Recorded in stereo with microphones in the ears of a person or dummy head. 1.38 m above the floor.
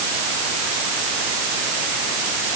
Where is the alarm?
No alarm in this recording.